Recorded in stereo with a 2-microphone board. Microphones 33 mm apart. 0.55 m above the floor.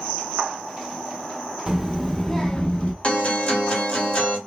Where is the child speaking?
15° right (ahead or behind), 0.7 m; by 2.9 s 40° left (ahead or behind), 0.8 m.